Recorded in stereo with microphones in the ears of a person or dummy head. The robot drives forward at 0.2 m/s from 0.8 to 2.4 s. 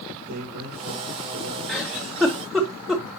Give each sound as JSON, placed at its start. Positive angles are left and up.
{"t": 0.3, "sound": "a man speaking", "side_deg": -80, "distance_m": 5.0}
{"t": 1.7, "sound": "a giggle", "side_deg": -5, "distance_m": 2.0}